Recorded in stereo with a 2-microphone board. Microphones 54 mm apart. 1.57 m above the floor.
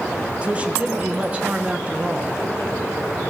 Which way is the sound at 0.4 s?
25° right (ahead or behind).